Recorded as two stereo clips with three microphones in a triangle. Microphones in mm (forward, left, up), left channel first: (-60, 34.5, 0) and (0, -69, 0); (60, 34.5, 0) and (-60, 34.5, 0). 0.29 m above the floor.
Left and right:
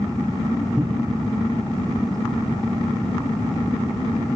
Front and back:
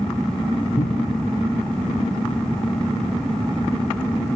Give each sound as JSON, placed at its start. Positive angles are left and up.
{"t": 0.8, "sound": "a cupboard door", "azimuth_deg": 30, "distance_m": 6.0}